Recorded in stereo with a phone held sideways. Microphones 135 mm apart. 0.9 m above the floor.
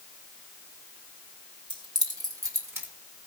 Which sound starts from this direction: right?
Keys jangling, at 1.7 s.